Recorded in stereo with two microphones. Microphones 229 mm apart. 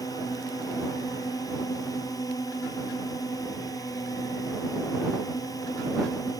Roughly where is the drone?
Centre.